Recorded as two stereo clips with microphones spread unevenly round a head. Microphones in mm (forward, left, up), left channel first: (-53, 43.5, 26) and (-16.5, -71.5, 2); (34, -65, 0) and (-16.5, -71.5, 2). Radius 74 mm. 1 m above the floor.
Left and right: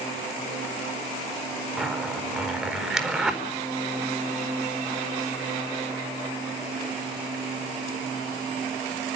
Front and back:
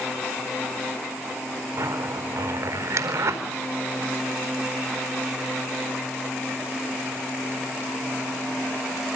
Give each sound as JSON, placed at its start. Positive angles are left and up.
{"t": 1.8, "sound": "a zipper", "azimuth_deg": -160, "distance_m": 4.5}